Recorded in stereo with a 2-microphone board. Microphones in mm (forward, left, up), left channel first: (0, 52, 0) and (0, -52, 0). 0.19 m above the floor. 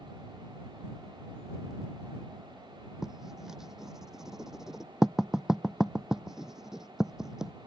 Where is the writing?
5° right (ahead or behind).